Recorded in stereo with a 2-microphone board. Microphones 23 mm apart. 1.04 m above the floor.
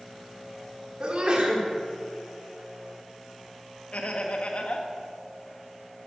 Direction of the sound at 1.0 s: 45° right (ahead or behind).